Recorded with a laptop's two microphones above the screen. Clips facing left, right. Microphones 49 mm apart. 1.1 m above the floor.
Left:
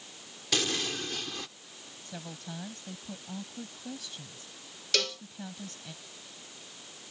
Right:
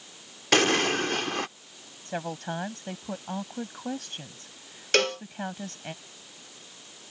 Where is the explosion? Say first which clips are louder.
Right 9 dB; 55° right (ahead or behind).